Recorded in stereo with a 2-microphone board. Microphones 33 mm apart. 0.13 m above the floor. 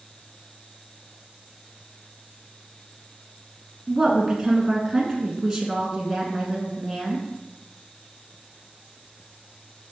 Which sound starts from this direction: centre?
A woman speaking, at 3.9 s.